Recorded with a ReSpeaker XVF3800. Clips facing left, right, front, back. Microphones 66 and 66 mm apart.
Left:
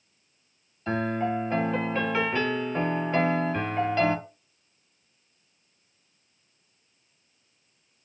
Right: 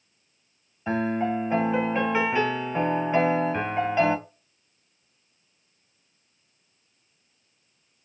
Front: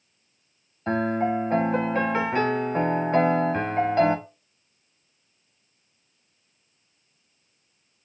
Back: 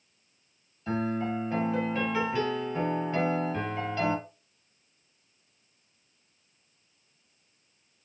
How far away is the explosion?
No explosion in this recording.